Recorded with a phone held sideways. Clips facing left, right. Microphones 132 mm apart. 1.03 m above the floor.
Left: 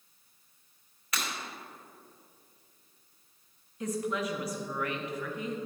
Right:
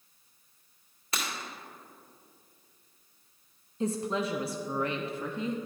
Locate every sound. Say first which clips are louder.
1.1 s breaking glass: right 1 dB; 30° right (ahead or behind), 1.9 m
3.8 s a woman speaking: right 2 dB; 30° right (ahead or behind), 0.5 m